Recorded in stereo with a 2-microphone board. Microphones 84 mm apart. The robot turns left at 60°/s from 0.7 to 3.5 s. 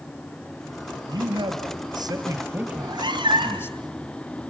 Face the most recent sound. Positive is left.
turn(degrees=-90)